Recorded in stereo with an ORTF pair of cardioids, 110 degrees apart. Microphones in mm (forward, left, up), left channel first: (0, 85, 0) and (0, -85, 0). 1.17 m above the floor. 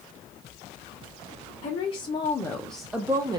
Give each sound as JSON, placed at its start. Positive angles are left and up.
{"t": 1.6, "sound": "a woman speaking", "azimuth_deg": 40, "distance_m": 1.0}